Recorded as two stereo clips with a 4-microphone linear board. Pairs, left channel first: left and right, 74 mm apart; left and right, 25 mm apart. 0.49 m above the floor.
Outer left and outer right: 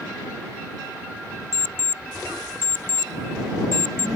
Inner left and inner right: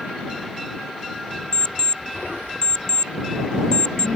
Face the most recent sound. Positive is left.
turn(degrees=30)  # may be behind; listen again after turning